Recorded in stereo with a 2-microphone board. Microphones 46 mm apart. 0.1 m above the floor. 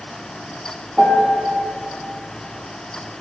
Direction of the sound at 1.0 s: 25° right (ahead or behind).